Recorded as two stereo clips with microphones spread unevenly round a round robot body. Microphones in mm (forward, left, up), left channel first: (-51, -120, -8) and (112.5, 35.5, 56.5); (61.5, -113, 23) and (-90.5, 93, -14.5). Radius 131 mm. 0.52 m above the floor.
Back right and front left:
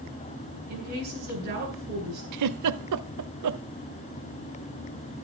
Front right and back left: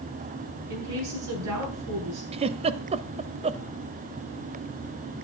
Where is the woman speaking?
100° left, 8 m.